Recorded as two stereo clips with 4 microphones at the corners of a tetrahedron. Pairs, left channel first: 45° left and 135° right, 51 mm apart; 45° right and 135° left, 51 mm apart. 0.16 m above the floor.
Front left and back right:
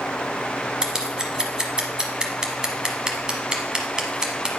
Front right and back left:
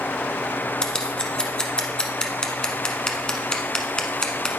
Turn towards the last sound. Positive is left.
turn(degrees=-85)